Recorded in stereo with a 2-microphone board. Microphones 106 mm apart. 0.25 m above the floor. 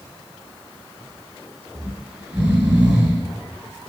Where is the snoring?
15° right (ahead or behind), 2 m.